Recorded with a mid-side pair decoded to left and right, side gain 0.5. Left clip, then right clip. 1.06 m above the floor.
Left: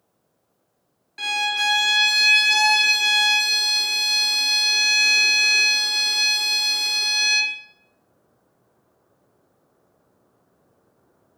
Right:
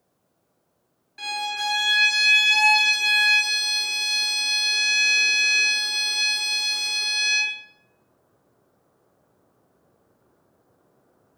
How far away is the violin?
About 1.0 m.